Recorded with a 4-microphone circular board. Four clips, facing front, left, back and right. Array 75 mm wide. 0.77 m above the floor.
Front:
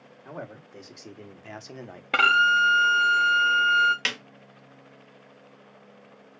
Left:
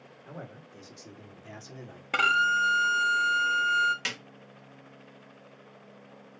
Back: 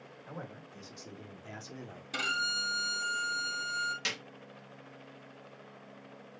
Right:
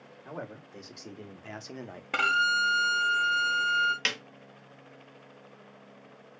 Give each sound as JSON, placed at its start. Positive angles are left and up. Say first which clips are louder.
{"t": 0.2, "sound": "a man speaking", "louder": "right 4 dB, front 6 dB", "azimuth_deg": -35, "distance_m": 3.0}
{"t": 2.1, "sound": "a violin", "louder": "left 2 dB, front 16 dB", "azimuth_deg": 5, "distance_m": 0.7}
{"t": 4.0, "sound": "a snare drum", "louder": "right 3 dB, front 7 dB", "azimuth_deg": -25, "distance_m": 1.3}